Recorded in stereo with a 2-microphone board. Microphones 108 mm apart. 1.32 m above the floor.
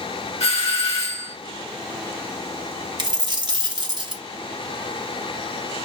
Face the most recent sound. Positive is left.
turn(degrees=-45)  # may be behind; listen again after turning